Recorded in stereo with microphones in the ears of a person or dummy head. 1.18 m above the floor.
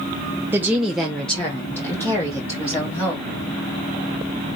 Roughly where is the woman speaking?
Centre.